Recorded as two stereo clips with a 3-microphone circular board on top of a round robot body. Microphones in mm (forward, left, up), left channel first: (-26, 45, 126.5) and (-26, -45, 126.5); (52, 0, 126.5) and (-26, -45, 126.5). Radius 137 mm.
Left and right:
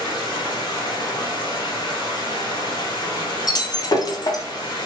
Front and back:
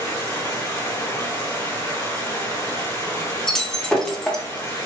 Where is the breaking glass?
110° left, 0.8 m.